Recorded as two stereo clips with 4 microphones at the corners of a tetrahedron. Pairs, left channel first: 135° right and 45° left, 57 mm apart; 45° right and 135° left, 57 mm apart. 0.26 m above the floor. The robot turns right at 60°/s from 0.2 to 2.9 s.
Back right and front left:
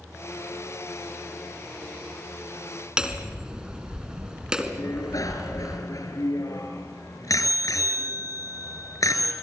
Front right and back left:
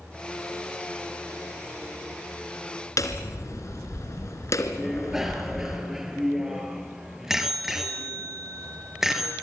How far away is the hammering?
About 2 m.